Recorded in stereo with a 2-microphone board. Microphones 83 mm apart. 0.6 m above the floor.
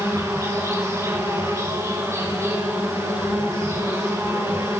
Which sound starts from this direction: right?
An insect, at 0.0 s.